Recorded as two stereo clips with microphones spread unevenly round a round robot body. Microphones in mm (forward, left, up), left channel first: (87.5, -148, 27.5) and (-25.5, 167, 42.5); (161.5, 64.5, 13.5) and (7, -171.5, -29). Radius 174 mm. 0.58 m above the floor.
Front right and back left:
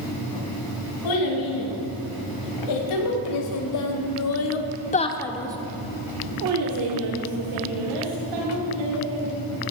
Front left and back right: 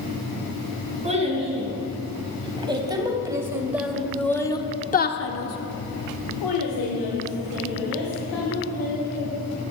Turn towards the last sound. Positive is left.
turn(degrees=100)